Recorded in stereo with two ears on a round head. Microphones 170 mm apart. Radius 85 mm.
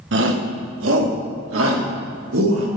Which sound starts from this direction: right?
A shout, at 0.1 s.